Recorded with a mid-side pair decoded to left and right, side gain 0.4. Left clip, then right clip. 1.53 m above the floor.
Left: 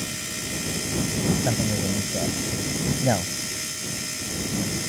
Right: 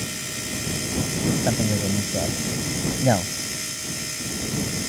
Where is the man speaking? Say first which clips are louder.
Right 1 dB; 20° right.